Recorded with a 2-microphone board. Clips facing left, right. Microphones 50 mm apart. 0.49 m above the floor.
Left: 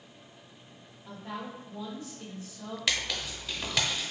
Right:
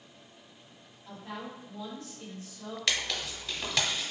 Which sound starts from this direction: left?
A woman speaking, at 1.1 s.